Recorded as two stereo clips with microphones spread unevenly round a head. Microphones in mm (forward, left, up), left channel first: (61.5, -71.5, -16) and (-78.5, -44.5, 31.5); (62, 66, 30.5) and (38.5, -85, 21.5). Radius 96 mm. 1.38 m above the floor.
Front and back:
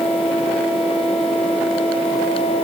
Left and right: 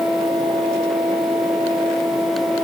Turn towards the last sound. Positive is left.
No sound to turn to.